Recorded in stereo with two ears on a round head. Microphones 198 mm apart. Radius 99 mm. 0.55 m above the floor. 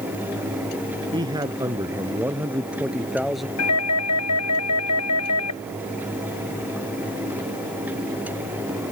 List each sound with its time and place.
1.1 s a man speaking: 20° right (ahead or behind); by 3.5 s centre (ahead or behind)
3.6 s a doorbell: 80° left